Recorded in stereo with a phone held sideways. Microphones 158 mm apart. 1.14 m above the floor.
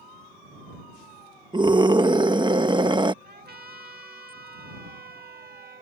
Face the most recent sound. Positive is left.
turn(degrees=-75)  # may be behind; listen again after turning